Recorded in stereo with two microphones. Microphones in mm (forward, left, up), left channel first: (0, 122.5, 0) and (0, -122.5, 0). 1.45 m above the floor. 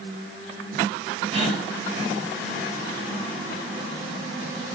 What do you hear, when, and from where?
1.3 s a gasp: 25° right (ahead or behind), 3 m